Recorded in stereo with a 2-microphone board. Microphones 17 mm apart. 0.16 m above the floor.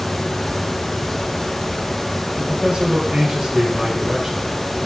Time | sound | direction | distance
2.4 | a man speaking | 60° right (ahead or behind) | 4.5 m